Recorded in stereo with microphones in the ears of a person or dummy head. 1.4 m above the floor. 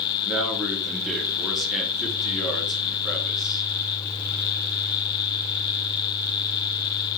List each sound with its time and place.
0.2 s a man speaking: 10° left (ahead or behind), 3.5 m